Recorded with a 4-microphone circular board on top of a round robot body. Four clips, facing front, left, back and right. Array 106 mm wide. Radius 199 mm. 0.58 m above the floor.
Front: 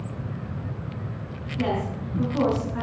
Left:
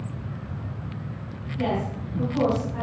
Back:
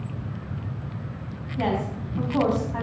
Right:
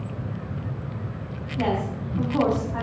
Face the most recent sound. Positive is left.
turn(degrees=-150)